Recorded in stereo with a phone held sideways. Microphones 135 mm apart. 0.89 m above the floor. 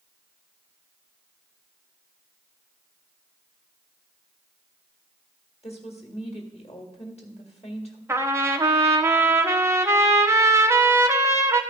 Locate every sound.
5.6 s a woman speaking: 50° left (ahead or behind), 1.8 m
8.1 s a trumpet: 20° right (ahead or behind), 0.7 m